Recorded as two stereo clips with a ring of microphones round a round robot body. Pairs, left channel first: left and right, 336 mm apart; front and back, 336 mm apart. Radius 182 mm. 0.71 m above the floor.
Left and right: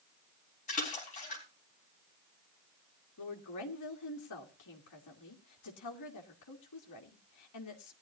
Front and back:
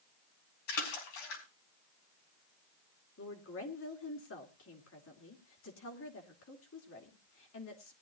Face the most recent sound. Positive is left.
turn(degrees=55)